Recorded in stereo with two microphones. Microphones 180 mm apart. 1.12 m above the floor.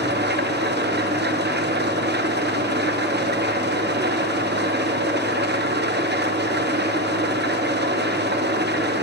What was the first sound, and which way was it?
An engine running, 65° right (ahead or behind).